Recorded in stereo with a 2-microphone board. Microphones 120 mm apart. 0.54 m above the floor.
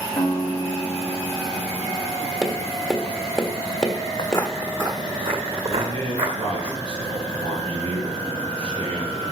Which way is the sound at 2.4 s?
5° left (ahead or behind).